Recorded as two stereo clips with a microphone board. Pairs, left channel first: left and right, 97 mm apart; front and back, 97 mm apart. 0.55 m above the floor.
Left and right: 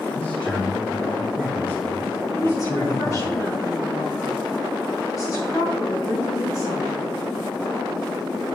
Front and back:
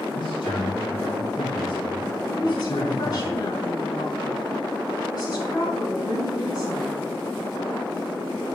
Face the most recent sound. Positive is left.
turn(degrees=40)